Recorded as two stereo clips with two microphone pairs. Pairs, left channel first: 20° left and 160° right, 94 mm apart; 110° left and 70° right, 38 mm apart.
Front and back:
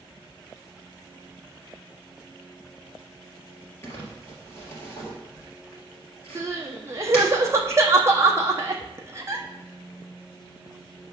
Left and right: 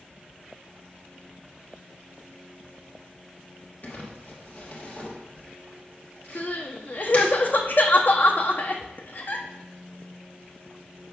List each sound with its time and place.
3.8 s crumpling: 80° left, 2 m
6.3 s crying: 140° left, 0.8 m